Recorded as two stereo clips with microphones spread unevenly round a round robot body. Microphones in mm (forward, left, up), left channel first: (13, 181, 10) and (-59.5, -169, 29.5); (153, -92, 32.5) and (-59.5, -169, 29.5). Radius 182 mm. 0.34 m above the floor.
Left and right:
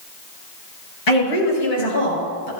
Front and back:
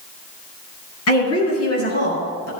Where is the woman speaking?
45° left, 7 m; by 2.5 s 55° left, 6.5 m.